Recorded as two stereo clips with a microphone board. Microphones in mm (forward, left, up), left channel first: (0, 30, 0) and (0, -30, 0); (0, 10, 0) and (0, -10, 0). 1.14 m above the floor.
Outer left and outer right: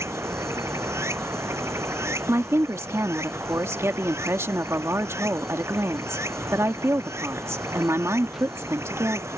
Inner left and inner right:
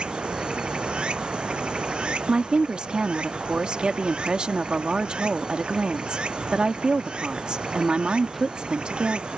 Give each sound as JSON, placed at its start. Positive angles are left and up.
{"t": 0.0, "sound": "running water", "side_deg": -50}
{"t": 2.3, "sound": "a woman speaking", "side_deg": -50}